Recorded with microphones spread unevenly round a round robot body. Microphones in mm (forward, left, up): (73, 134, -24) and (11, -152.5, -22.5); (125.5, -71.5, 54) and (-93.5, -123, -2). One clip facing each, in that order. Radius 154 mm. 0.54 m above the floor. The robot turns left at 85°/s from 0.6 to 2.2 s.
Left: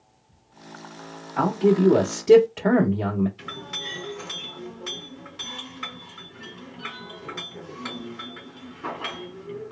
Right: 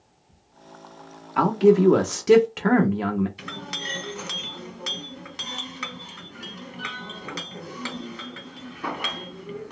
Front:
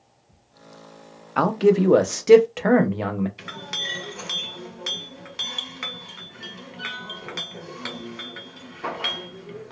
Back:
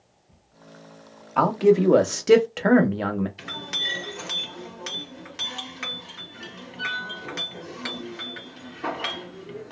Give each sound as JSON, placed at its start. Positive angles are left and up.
{"t": 1.4, "sound": "a man speaking", "azimuth_deg": -65, "distance_m": 0.6}
{"t": 3.4, "sound": "a clink", "azimuth_deg": -90, "distance_m": 1.5}